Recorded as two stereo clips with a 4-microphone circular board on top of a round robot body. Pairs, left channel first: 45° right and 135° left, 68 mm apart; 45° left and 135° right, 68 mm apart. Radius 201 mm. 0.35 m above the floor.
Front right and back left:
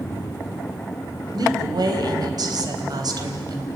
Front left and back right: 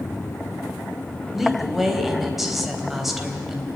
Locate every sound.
1.3 s a woman speaking: 140° left, 4 m